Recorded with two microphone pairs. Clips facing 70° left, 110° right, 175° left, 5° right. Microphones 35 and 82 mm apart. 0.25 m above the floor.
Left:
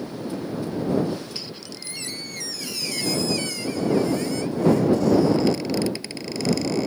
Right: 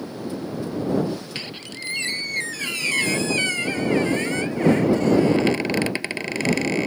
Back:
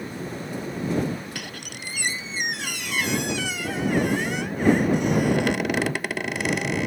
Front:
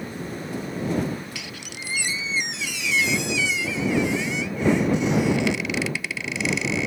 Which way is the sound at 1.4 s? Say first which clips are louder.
Right 3 dB, back 1 dB; 145° right.